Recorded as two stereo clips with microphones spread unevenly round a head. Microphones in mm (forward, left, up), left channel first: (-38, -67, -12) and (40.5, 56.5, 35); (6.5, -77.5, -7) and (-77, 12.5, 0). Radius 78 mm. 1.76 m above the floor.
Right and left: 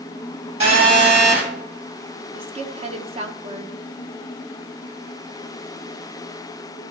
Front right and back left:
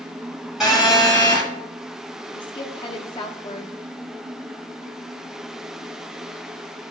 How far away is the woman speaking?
About 1.1 m.